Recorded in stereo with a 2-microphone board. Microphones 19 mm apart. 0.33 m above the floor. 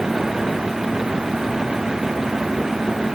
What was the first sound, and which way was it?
Only background noise.